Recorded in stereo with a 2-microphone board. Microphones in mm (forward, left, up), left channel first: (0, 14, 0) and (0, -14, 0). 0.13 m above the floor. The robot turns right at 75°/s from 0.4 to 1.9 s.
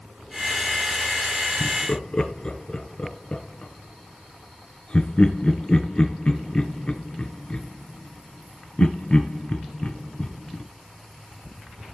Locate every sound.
1.6 s laughter: 45° left (ahead or behind), 1.4 m; by 10.6 s 40° left (ahead or behind), 1.4 m